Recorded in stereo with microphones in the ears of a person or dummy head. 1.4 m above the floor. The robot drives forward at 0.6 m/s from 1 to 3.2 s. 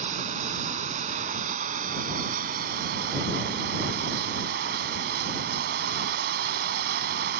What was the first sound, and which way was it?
Running water, 50° right (ahead or behind).